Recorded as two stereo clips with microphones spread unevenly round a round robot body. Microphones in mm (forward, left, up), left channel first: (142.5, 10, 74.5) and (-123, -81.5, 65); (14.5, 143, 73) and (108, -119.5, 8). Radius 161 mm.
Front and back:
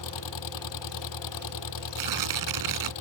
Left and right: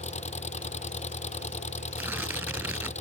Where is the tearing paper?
155° right.